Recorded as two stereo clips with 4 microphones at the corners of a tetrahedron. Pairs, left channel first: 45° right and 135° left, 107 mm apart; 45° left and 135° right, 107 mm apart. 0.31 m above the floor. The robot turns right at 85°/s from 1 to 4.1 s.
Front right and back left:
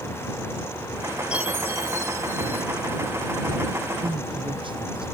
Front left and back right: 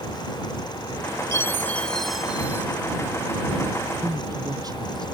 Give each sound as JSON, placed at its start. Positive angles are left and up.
{"t": 1.3, "sound": "a chime", "azimuth_deg": 65}
{"t": 4.0, "sound": "a man speaking", "azimuth_deg": 165}